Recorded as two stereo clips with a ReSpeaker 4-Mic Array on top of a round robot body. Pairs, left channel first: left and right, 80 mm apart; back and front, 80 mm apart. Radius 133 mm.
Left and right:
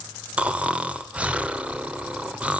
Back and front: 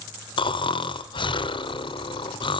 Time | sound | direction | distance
0.4 | snoring | 165° right | 1.0 m